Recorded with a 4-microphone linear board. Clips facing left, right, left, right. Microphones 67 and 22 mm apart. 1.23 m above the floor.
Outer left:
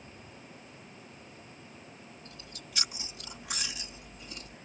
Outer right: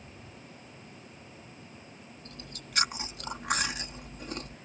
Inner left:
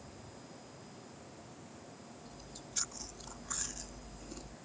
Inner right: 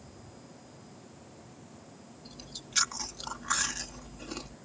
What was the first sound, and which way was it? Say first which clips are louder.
Chewing: outer right 2 dB, inner right 5 dB; 55° right (ahead or behind).